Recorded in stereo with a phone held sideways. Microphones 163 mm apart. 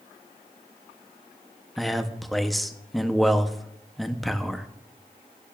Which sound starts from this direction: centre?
A man speaking, at 1.8 s.